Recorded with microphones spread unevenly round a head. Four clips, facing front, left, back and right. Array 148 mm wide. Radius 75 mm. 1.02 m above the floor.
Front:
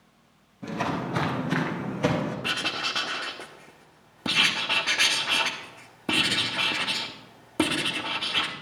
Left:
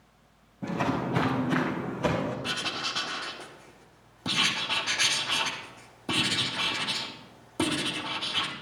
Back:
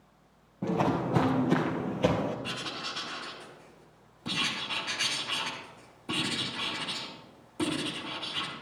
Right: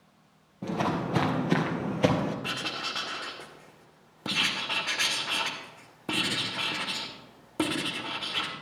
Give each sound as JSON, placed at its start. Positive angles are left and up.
{"t": 0.6, "sound": "footsteps", "azimuth_deg": -160, "distance_m": 1.8}
{"t": 2.4, "sound": "writing", "azimuth_deg": -10, "distance_m": 1.1}